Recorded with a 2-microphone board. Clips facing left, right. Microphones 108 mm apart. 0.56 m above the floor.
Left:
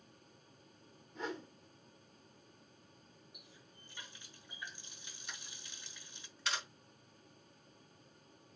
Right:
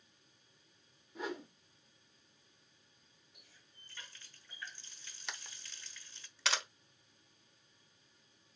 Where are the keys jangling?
I don't hear keys jangling.